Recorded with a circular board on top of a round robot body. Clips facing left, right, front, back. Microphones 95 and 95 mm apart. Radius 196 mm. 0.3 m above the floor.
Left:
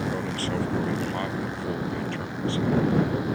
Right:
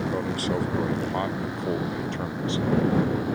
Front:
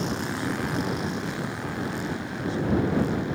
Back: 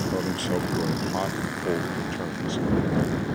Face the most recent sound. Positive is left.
turn(degrees=-160)